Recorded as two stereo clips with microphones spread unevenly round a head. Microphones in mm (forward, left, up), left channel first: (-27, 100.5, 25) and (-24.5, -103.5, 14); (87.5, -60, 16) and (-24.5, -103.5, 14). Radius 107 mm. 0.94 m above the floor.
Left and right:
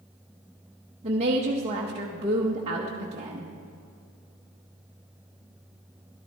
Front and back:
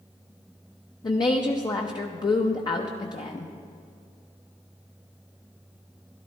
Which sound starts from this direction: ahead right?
A woman speaking, at 1.0 s.